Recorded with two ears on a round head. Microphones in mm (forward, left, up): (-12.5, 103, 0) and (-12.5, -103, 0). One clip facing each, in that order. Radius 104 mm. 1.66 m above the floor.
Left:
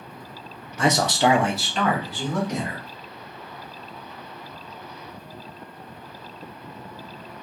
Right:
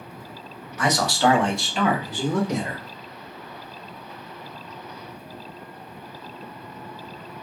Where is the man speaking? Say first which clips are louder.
Left 1 dB; 25° left (ahead or behind), 0.7 m; by 2.8 s 25° right (ahead or behind), 0.9 m.